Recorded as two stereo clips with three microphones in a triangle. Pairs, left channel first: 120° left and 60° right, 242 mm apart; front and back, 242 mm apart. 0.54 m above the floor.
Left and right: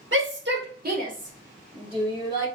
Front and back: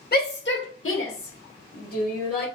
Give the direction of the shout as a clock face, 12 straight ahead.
1 o'clock.